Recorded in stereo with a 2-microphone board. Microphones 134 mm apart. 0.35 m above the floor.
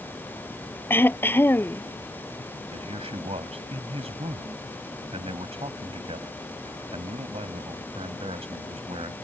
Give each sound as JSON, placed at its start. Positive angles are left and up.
{"t": 0.9, "sound": "throat clearing", "side_deg": 15}
{"t": 2.7, "sound": "a man speaking", "side_deg": -45}